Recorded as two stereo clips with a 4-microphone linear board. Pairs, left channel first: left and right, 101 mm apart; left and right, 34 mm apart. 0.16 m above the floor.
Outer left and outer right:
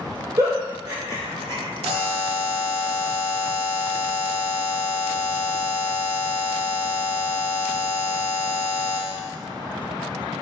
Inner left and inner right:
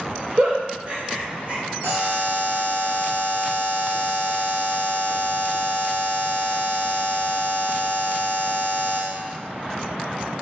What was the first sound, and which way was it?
A giggle, 35° right (ahead or behind).